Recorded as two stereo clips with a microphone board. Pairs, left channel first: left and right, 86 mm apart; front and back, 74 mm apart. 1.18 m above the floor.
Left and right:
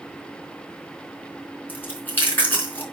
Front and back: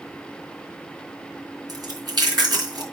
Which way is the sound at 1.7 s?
155° left.